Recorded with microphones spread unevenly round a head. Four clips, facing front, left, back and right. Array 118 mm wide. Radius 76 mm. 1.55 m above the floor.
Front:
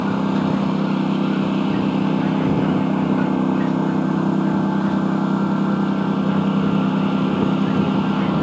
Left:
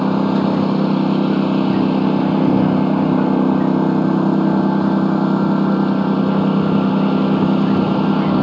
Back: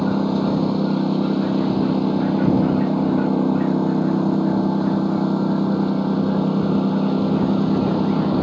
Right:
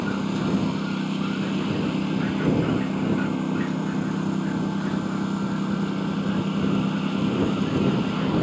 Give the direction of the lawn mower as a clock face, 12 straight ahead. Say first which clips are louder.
Left 10 dB, even; 8 o'clock.